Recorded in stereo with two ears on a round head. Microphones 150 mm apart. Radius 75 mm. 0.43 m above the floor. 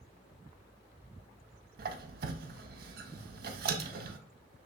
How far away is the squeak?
About 0.6 m.